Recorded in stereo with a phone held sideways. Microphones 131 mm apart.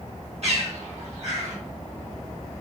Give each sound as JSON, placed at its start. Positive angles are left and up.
{"t": 0.4, "sound": "a bird", "side_deg": -60, "distance_m": 1.2}